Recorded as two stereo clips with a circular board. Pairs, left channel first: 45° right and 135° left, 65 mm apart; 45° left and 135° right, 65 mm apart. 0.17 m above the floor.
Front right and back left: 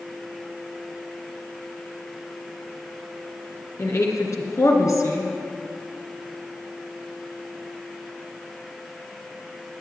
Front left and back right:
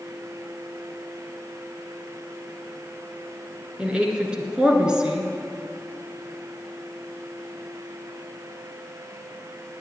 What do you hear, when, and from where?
3.8 s a woman speaking: 60° right, 2.5 m